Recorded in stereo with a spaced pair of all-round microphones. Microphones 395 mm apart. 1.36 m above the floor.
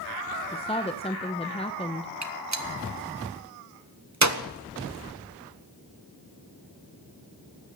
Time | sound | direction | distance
0.5 | a woman speaking | 15° left (ahead or behind) | 0.8 m
2.2 | a gunshot | 45° right (ahead or behind) | 1.2 m